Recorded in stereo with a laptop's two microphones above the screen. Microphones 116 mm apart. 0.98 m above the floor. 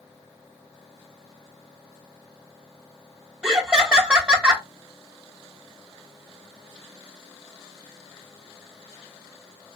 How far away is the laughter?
About 0.6 m.